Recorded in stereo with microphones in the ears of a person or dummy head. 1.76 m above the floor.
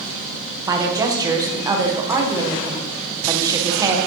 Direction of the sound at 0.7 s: 15° right (ahead or behind).